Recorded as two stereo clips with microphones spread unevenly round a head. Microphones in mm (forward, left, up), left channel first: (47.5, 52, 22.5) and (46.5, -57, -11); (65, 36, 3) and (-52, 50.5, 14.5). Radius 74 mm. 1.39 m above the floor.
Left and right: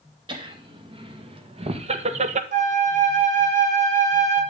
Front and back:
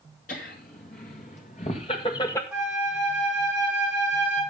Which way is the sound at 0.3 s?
45° right.